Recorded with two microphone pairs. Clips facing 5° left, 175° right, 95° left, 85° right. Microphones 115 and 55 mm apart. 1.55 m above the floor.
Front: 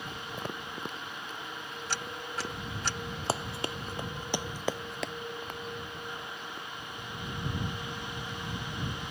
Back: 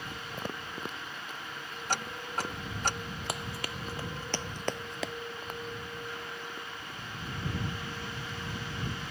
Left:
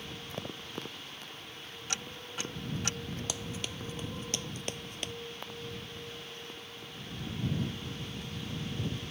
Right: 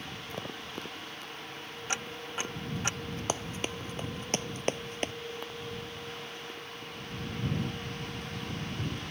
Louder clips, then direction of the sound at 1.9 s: Back 4 dB, right 5 dB; 145° right.